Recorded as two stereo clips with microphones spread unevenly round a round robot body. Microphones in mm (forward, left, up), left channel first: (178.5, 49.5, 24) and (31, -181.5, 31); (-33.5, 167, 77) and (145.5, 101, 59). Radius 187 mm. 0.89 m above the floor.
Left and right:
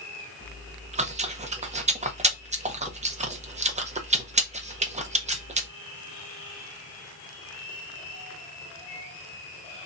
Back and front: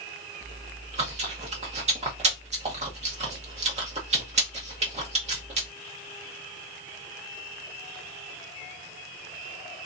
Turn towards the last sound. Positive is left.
turn(degrees=-60)